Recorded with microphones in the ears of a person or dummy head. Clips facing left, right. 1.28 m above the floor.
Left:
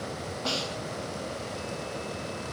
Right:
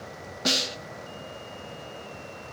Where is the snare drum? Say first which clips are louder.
Right 4 dB; 25° right (ahead or behind), 0.5 m.